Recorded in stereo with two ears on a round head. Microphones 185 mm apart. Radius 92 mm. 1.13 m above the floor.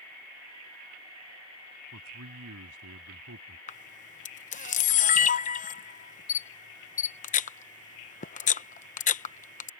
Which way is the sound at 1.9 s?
85° right.